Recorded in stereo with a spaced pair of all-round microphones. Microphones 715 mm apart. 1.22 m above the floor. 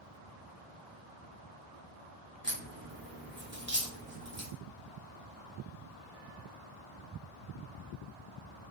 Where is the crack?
15° right (ahead or behind), 1.0 m.